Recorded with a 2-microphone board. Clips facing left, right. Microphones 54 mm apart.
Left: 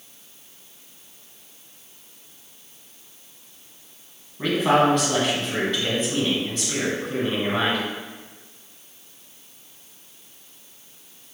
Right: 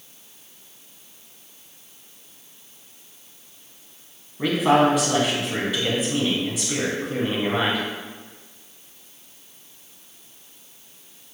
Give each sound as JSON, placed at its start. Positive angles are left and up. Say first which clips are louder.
{"t": 4.4, "sound": "a man speaking", "louder": "right 1 dB", "side_deg": -5, "distance_m": 2.5}